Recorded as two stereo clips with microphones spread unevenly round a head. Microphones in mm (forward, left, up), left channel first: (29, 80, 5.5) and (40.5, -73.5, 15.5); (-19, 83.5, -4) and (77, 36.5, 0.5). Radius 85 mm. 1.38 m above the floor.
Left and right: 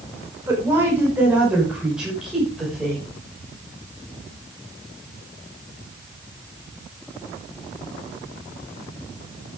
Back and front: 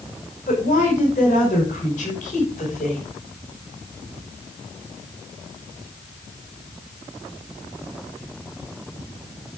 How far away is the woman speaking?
About 6 m.